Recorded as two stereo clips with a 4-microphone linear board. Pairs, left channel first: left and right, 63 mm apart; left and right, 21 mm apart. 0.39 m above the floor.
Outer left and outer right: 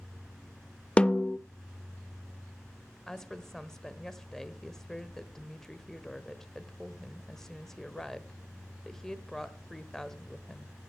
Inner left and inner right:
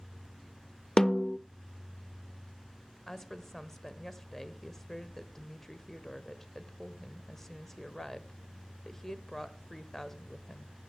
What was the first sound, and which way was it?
A snare drum, 20° left (ahead or behind).